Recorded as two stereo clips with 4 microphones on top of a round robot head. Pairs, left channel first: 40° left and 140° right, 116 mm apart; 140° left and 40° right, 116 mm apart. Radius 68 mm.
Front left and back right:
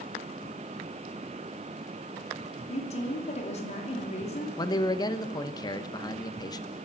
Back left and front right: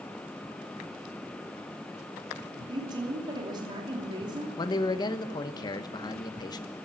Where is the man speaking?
90° left, 1.1 m.